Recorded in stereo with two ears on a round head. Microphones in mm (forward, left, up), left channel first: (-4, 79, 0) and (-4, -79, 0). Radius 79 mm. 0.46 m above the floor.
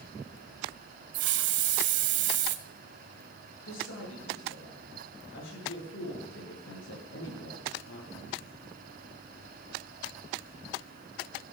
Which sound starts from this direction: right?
A hiss, at 1.1 s.